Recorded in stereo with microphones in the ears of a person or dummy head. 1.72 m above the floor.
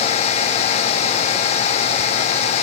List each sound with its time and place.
Only background noise.